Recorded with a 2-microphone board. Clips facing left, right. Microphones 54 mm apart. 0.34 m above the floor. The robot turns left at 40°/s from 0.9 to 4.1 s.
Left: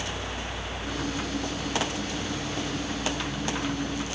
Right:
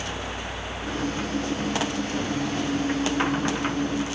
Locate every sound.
Only background noise.